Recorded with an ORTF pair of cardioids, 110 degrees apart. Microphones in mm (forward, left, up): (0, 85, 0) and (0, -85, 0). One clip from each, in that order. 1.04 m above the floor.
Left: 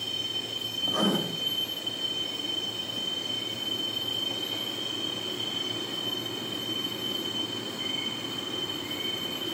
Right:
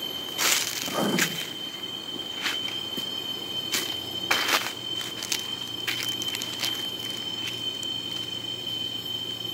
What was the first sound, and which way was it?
Writing, 20° right.